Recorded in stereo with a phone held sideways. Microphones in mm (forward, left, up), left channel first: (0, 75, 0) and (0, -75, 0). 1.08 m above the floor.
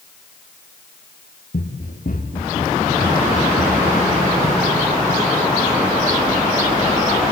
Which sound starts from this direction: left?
Running footsteps, at 1.5 s.